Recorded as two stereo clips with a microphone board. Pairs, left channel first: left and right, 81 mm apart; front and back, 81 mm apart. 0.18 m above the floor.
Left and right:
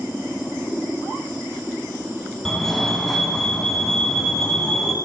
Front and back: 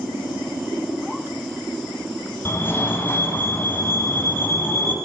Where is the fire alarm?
10° left, 2.5 m.